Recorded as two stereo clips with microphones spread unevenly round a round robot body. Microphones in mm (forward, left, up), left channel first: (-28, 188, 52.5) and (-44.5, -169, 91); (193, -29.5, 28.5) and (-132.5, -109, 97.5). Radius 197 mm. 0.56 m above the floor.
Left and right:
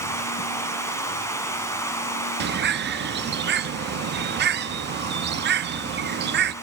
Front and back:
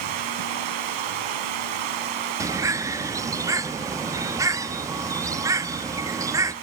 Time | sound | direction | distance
0.0 | running water | 170° left | 2 m
2.4 | a bird | 70° right | 0.7 m